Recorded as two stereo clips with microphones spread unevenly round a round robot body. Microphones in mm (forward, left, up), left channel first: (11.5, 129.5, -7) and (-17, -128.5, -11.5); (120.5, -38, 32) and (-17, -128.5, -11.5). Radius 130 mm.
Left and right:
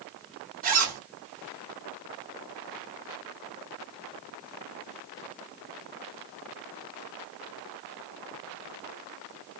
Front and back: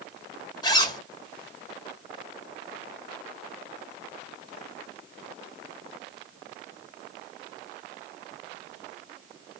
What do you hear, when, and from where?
0.6 s a zipper: 40° right, 1.7 m